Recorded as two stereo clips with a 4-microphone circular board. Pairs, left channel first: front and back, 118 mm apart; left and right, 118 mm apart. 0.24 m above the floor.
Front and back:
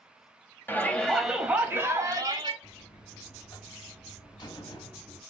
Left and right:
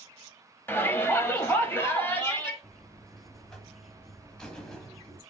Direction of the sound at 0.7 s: 45° left.